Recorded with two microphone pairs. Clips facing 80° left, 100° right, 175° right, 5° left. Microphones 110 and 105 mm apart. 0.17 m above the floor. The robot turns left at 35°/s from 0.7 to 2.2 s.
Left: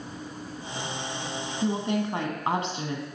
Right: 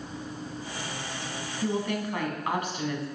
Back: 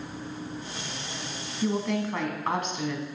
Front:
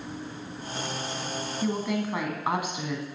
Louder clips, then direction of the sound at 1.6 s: Left 2 dB, back 2 dB; 95° left.